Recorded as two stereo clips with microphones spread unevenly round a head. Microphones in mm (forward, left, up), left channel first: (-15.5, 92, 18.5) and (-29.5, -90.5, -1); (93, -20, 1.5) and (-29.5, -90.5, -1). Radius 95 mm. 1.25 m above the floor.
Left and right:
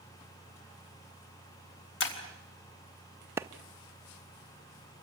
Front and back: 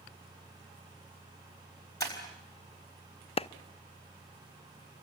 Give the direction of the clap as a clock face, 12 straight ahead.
12 o'clock.